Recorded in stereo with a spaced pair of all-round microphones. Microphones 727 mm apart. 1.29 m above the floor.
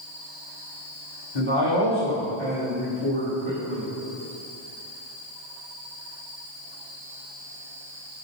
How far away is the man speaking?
About 1.6 m.